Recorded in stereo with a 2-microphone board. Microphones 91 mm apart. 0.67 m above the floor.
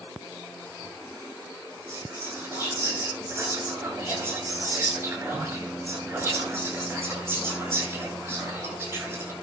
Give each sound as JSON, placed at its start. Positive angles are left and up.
{"t": 1.9, "sound": "whispering", "side_deg": -30, "distance_m": 8.5}